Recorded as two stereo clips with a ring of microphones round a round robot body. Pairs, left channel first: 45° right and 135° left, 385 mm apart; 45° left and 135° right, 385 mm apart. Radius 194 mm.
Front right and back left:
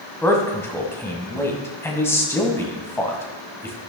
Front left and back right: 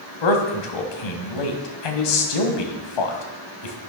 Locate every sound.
0.2 s a man speaking: 40° left, 2.5 m